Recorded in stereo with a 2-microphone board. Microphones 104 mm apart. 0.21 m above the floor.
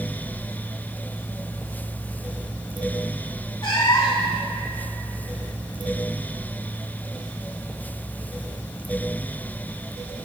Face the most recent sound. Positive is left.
turn(degrees=45)  # may be behind; listen again after turning